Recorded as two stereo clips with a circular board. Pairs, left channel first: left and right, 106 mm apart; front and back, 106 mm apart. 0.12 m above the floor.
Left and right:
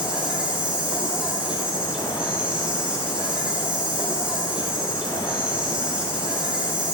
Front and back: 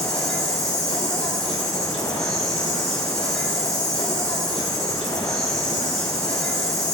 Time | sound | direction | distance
0.0 | an insect | 10° right | 1.2 m